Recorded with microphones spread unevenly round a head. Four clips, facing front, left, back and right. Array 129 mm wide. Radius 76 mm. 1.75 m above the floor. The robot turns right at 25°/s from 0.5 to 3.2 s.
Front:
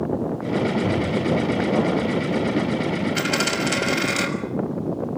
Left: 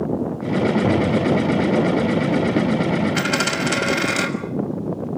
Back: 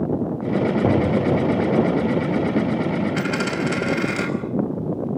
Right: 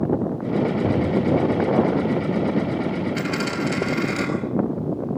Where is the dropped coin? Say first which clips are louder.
Left 3 dB, back 1 dB; 55° left, 6 m.